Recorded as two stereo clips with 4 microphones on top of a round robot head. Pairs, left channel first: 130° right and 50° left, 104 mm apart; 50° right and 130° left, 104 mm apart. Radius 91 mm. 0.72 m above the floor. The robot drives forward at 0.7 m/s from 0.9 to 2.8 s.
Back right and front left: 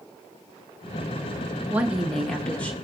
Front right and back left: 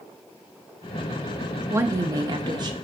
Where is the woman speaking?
105° left, 0.8 m; by 2.7 s 160° left, 1.1 m.